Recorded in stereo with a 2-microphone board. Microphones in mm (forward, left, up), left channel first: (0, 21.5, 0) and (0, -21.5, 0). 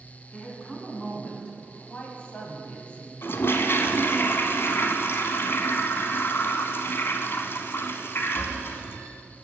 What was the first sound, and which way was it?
A woman speaking, 20° left (ahead or behind).